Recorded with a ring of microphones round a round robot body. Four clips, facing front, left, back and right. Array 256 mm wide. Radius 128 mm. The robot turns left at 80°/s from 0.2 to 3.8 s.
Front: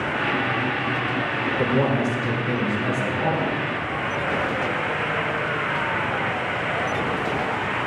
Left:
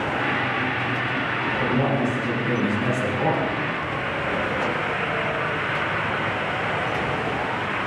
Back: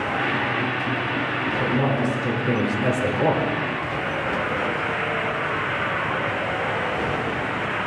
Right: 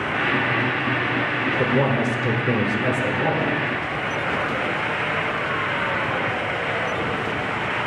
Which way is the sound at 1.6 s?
45° right.